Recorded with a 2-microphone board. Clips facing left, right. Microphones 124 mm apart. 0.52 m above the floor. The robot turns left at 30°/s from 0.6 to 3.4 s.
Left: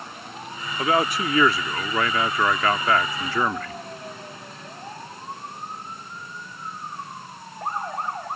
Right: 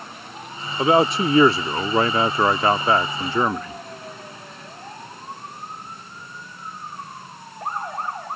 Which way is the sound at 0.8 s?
25° right (ahead or behind).